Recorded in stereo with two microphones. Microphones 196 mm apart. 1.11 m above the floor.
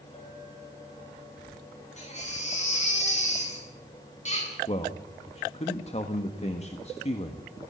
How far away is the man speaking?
About 1.5 m.